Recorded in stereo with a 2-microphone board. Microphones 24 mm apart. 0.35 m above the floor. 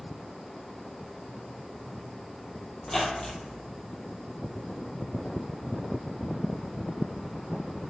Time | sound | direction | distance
2.8 | a squeak | 15° left (ahead or behind) | 0.8 m